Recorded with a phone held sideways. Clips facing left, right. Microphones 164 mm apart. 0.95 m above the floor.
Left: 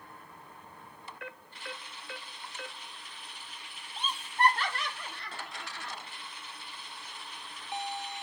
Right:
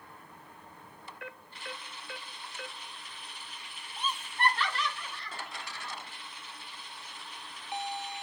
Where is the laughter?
25° left (ahead or behind), 2 m; by 6.0 s 75° left (ahead or behind), 3 m.